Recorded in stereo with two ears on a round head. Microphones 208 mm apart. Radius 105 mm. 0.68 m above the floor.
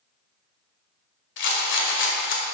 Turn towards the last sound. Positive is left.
turn(degrees=55)  # may be behind; listen again after turning